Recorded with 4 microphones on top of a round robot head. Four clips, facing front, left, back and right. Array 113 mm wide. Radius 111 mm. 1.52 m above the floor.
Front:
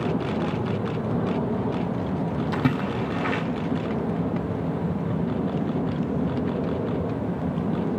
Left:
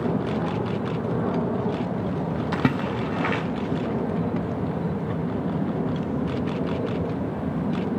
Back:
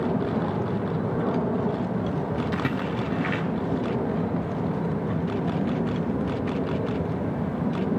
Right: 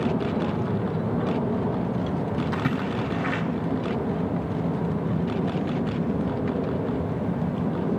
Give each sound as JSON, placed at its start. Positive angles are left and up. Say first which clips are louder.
{"t": 2.5, "sound": "a splash", "louder": "left 2 dB, front 2 dB", "azimuth_deg": 75, "distance_m": 1.6}